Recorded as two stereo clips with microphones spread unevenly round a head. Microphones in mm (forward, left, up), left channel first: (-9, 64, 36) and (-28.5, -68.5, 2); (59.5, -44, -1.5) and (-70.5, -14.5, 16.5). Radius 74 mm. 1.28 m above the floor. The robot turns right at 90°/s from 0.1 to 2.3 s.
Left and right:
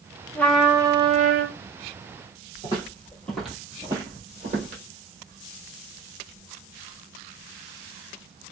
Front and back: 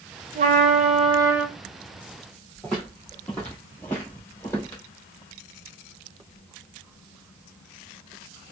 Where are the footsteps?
85° left, 1.6 m; by 4.8 s 85° right, 1.5 m.